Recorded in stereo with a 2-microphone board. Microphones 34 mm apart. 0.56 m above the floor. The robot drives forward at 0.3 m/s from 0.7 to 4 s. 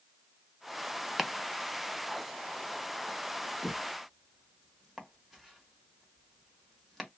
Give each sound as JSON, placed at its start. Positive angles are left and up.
{"t": 1.2, "sound": "chopping", "side_deg": -5, "distance_m": 0.5}